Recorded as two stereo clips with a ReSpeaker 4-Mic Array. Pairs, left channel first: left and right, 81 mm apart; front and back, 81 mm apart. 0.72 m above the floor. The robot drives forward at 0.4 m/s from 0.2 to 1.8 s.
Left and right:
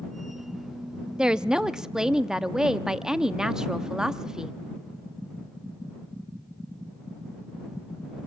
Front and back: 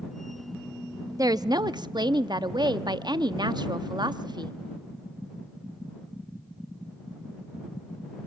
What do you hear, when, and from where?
1.2 s a woman speaking: 170° right, 0.6 m